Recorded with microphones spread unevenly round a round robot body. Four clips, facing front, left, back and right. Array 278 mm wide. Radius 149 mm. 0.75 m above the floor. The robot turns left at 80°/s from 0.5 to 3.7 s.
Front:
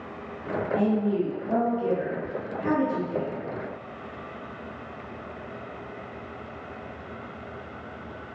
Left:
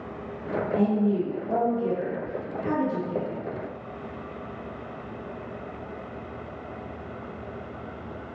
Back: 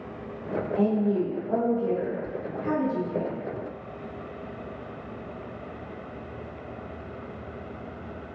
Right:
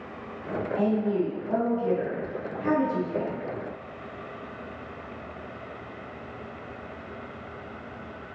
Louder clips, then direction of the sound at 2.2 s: Left 1 dB, front 1 dB; 15° right.